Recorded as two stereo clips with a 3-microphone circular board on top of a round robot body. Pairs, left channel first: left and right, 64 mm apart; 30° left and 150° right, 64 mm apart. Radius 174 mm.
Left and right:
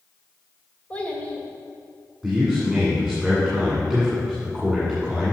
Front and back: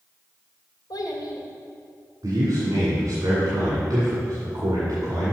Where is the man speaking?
Straight behind, 1.9 m.